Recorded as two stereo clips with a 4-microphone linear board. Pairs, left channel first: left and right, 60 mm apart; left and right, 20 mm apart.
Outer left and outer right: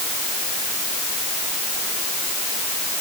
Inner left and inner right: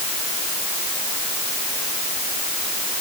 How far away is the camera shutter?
No camera shutter in this recording.